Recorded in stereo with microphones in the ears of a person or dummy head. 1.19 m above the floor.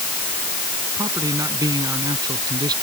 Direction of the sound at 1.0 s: 20° right (ahead or behind).